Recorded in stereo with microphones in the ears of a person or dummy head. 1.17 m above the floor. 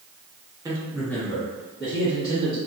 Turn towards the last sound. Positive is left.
turn(degrees=25)  # may be behind; listen again after turning